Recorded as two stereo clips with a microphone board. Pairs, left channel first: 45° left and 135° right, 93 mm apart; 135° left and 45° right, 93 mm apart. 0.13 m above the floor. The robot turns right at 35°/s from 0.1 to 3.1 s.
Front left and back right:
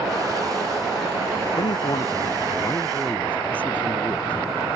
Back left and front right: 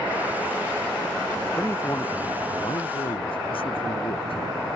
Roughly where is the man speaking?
Ahead left.